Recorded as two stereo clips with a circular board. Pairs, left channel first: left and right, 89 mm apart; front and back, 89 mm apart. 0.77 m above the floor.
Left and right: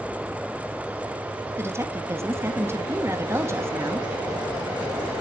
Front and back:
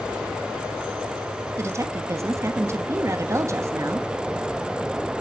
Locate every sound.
1.6 s a woman speaking: 140° right, 1.2 m